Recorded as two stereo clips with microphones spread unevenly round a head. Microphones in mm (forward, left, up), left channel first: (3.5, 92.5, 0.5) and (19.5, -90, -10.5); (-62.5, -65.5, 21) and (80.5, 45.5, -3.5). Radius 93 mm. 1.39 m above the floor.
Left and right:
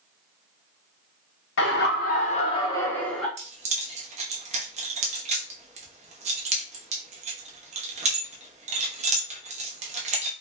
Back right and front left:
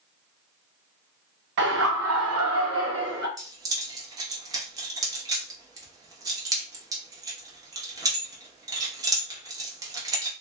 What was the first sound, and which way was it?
Laughter, 75° left.